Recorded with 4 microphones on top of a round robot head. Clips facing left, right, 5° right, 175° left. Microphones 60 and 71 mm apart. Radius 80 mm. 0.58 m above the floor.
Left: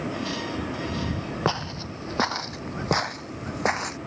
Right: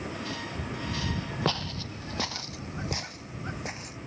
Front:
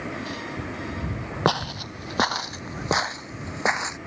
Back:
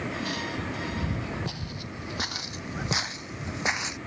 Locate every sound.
1.4 s footsteps: 15° left; by 4.0 s 55° left